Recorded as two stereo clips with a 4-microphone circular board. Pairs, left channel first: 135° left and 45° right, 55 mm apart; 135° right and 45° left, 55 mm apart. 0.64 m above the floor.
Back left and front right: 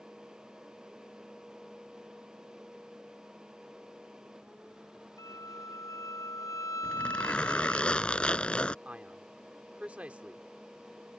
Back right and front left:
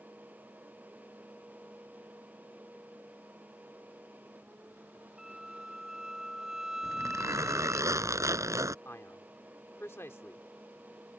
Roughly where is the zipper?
Ahead left.